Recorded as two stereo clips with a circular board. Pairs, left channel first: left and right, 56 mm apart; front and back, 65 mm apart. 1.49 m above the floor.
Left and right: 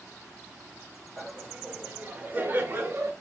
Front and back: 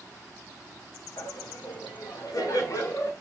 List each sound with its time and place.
1.2 s laughter: 10° right, 1.8 m; by 3.1 s 45° right, 1.2 m